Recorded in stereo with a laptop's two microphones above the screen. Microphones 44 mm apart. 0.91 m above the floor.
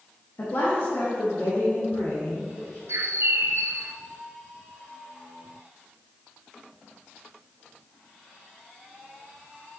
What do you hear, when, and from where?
0.4 s a woman speaking: 55° left (ahead or behind), 1.5 m; by 2.8 s 80° left, 4 m
2.9 s a bird: 80° right, 0.5 m